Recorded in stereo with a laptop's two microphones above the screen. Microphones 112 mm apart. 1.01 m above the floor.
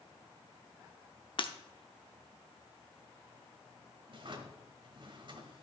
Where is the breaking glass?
50° left (ahead or behind), 0.8 m.